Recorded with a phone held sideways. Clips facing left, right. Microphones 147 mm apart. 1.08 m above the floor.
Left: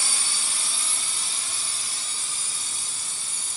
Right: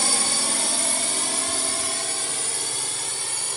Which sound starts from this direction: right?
A drone, at 0.0 s.